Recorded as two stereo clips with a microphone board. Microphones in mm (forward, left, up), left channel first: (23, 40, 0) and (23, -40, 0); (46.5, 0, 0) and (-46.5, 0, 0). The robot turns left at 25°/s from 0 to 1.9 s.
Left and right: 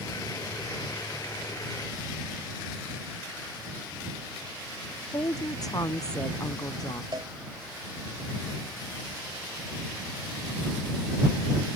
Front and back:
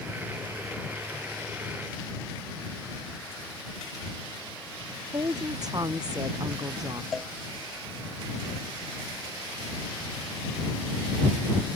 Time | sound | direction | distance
5.1 | a woman speaking | 130° left | ?
7.1 | a cowbell | 95° right | ?